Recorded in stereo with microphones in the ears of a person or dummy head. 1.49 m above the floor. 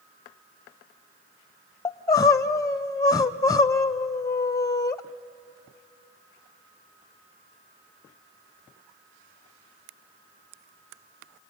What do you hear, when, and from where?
1.9 s crying: 20° left (ahead or behind), 0.5 m